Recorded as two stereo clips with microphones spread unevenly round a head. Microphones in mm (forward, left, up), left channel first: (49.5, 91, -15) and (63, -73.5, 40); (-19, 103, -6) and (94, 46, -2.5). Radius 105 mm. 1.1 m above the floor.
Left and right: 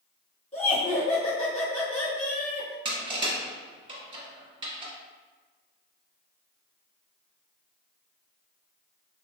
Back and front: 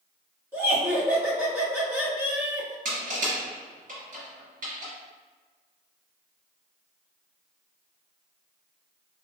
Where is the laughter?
45° left, 1.8 m.